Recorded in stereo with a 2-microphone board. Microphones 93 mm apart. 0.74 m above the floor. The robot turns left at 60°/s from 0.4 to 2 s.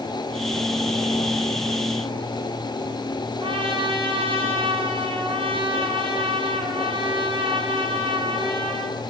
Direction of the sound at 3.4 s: 80° right.